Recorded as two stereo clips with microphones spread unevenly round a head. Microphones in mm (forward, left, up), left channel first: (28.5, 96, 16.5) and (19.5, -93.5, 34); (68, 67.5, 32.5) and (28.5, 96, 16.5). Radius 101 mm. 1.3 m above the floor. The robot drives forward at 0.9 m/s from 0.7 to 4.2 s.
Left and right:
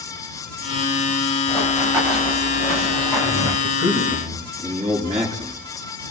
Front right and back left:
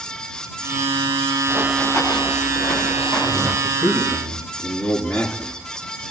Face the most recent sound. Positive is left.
turn(degrees=-165)